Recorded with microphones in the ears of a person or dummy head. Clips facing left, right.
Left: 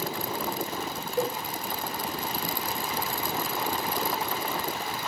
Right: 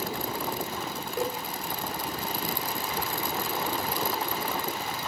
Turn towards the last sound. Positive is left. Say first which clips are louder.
# left 3 dB
turn(degrees=-60)  # may be behind; listen again after turning